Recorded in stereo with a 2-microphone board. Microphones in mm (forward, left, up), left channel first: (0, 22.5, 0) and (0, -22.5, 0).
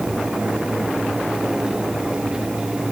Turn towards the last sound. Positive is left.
No sound to turn to.